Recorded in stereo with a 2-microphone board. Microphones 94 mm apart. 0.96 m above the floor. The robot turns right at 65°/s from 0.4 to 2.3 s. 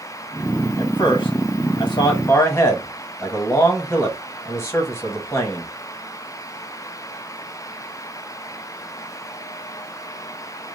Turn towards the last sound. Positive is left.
turn(degrees=30)  # may be behind; listen again after turning